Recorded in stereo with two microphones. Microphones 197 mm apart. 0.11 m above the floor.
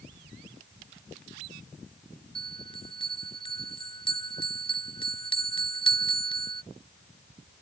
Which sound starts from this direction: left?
A bell, at 2.4 s.